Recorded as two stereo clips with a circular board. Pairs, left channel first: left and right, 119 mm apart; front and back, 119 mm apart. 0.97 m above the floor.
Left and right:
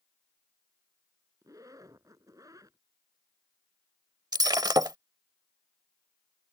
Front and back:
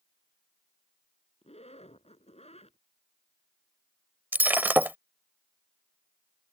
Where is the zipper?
30° right.